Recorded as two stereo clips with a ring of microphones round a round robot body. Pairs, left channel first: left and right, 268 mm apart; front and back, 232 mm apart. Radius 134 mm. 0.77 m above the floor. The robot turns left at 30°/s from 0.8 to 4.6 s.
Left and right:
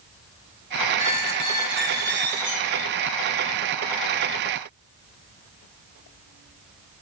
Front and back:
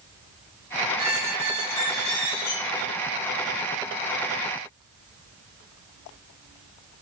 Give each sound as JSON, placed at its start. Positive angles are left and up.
{"t": 1.0, "sound": "a squeak", "azimuth_deg": 5, "distance_m": 1.5}